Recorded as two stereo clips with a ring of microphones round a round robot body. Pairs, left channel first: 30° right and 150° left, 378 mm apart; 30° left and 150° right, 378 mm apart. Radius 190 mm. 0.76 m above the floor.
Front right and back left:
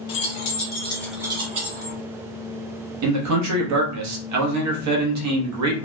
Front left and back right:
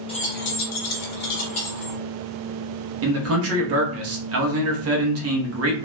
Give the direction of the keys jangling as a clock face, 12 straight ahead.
1 o'clock.